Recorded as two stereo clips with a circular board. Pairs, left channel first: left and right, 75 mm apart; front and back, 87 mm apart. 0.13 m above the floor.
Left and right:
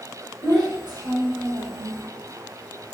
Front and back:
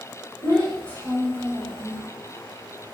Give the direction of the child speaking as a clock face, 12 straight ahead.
3 o'clock.